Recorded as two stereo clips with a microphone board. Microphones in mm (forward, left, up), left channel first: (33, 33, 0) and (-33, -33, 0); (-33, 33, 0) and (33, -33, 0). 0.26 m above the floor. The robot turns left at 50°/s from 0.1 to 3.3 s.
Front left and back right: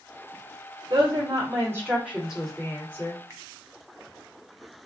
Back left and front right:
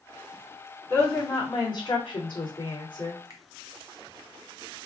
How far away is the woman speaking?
About 2.5 m.